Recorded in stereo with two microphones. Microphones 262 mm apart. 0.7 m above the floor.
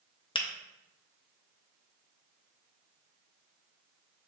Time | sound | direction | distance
0.3 | a finger snap | 20° left (ahead or behind) | 0.5 m